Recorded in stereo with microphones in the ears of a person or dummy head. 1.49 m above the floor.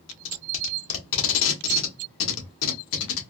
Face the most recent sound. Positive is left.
turn(degrees=75)  # may be behind; listen again after turning